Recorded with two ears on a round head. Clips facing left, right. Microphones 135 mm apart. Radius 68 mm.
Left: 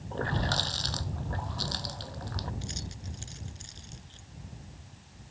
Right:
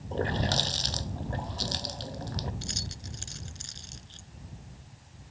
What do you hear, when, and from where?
0.1 s a running tap: 20° right (ahead or behind)
2.6 s keys jangling: 60° right (ahead or behind)